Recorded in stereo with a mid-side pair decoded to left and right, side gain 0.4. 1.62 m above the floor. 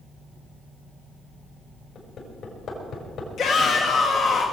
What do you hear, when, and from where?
1.9 s hammering: 70° left, 5 m
3.4 s a shout: 70° left, 1.7 m